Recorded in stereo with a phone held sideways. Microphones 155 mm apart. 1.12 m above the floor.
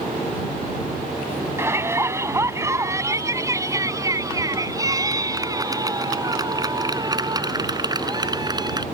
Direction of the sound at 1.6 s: 15° right (ahead or behind).